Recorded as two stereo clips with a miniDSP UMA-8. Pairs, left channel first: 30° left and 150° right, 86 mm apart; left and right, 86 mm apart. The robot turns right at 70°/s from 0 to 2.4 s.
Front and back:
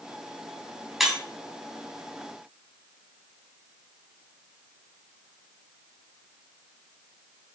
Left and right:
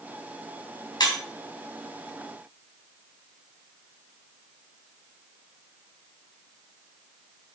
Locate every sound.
1.0 s breaking glass: 120° left, 3 m; by 1.2 s 135° left, 3 m